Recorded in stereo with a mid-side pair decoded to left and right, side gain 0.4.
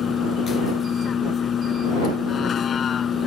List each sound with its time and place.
0.0 s a vehicle: 55° left